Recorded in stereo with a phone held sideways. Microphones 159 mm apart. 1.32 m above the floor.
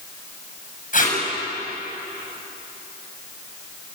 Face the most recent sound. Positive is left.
turn(degrees=55)  # may be behind; listen again after turning